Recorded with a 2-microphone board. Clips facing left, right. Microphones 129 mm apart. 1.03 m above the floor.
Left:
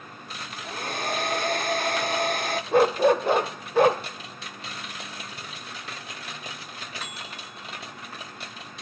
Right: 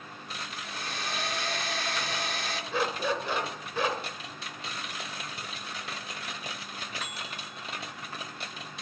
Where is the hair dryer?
50° left (ahead or behind), 1.3 m.